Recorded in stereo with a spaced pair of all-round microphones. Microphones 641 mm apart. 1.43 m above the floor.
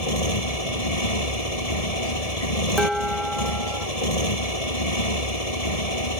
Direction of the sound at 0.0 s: 70° left (ahead or behind).